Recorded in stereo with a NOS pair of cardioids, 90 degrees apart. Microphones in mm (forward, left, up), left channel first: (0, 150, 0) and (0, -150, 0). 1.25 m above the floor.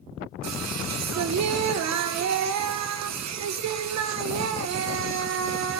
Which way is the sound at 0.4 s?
65° right.